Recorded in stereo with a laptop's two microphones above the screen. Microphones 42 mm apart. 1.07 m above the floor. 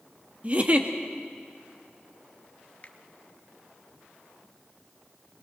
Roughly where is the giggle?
Right.